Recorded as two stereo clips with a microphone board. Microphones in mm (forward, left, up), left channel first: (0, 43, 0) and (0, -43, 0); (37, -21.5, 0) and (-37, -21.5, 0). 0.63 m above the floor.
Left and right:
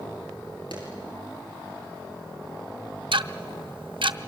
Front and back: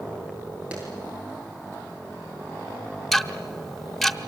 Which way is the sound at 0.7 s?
105° left.